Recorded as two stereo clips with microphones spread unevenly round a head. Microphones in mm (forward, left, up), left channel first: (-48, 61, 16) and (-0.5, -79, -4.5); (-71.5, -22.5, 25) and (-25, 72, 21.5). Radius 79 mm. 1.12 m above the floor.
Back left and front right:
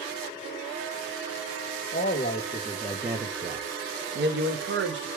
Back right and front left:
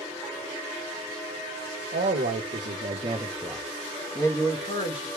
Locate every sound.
1.9 s a man speaking: 65° left, 1.0 m; by 5.1 s 60° right, 1.5 m